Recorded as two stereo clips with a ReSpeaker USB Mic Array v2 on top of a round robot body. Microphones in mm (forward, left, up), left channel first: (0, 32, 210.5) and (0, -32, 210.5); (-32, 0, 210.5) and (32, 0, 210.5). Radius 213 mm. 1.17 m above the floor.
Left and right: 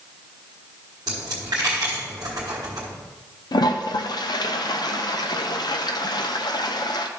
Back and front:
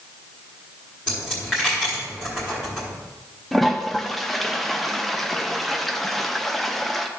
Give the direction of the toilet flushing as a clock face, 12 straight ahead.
9 o'clock.